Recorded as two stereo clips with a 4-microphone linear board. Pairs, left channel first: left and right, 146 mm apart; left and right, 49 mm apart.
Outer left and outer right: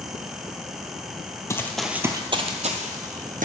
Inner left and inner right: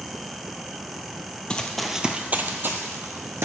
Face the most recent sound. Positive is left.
turn(degrees=-70)  # may be behind; listen again after turning